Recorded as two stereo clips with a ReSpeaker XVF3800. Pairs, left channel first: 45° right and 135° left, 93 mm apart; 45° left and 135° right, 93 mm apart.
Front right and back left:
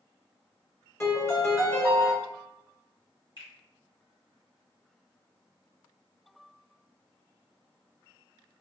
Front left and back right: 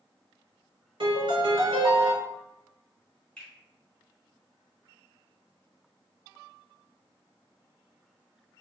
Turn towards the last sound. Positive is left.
turn(degrees=-35)